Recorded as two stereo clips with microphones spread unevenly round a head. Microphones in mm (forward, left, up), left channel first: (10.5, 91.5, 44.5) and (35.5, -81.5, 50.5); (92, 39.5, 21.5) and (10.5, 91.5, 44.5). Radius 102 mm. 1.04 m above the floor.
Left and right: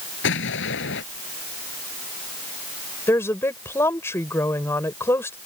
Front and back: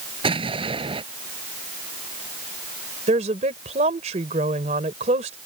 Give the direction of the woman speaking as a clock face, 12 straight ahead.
6 o'clock.